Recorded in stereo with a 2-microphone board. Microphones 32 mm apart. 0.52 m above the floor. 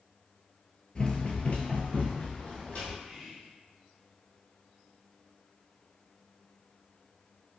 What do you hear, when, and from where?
0.9 s running footsteps: 30° left (ahead or behind), 0.5 m; by 2.9 s 40° left (ahead or behind), 1.1 m
3.0 s whispering: 5° right (ahead or behind), 0.9 m